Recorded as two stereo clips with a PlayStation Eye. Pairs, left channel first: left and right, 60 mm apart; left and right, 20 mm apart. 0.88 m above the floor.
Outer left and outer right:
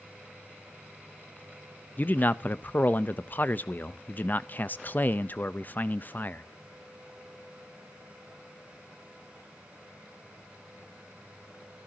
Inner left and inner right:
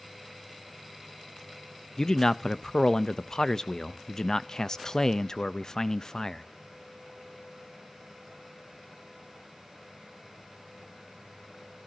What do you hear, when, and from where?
2.0 s a man speaking: 30° left (ahead or behind), 0.5 m